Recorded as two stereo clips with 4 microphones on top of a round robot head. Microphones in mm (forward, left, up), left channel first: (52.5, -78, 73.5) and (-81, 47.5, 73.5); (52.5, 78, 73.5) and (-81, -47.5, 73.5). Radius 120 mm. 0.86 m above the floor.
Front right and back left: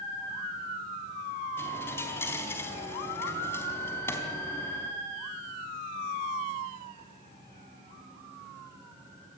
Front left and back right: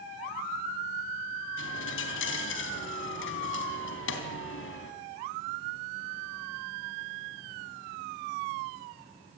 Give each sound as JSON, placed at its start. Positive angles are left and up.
{"t": 1.6, "sound": "a dropped coin", "azimuth_deg": 35, "distance_m": 3.5}